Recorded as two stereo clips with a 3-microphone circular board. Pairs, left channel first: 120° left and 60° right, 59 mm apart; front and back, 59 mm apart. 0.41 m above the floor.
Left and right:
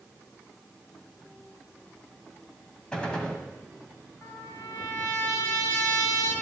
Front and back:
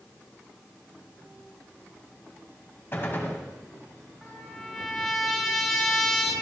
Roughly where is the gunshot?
Ahead left.